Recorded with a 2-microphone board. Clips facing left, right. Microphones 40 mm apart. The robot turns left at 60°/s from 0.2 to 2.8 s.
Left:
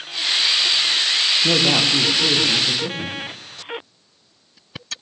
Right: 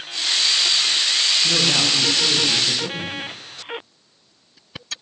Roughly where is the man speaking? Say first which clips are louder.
Left 2 dB; left.